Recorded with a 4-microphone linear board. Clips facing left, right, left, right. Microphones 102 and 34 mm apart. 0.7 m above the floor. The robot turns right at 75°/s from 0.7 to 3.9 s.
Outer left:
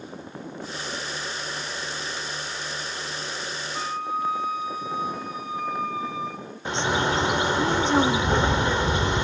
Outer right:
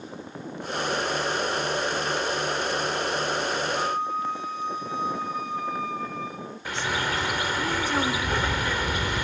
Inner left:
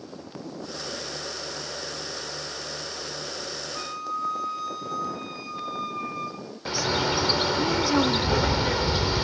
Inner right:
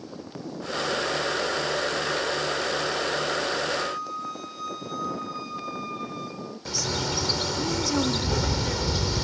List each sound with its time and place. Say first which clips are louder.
3.8 s a flute: outer right 2 dB, inner right 1 dB; 15° left (ahead or behind), 3.5 m; by 6.4 s 5° left (ahead or behind), 3.5 m
6.7 s a bird: outer left 5 dB, inner left 5 dB; 25° left (ahead or behind), 0.8 m